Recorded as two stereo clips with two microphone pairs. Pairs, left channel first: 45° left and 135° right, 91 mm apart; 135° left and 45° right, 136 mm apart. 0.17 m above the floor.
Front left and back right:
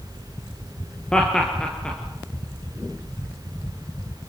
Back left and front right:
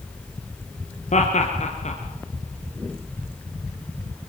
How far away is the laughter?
About 2.5 m.